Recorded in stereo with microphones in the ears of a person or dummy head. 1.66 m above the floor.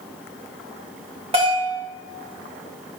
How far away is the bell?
About 3.5 m.